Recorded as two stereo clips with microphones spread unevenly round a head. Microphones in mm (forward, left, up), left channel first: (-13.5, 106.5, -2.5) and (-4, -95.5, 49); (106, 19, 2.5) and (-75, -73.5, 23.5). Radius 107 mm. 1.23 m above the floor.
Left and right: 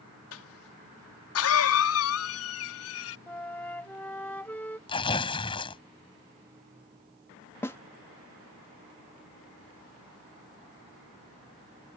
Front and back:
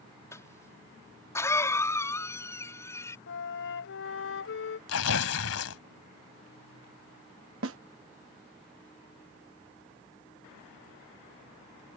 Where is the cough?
105° left.